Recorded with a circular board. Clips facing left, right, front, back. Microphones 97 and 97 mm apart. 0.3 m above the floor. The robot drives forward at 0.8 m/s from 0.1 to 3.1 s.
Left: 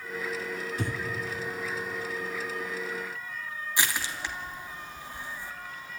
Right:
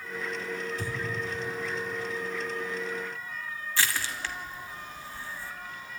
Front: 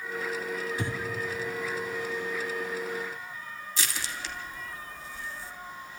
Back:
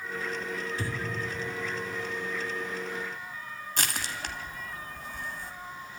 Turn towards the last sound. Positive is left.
turn(degrees=160)